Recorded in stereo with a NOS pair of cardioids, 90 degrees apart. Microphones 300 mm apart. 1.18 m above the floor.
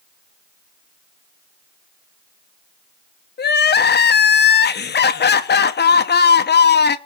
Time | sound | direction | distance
3.4 | crying | 35° left | 1.2 m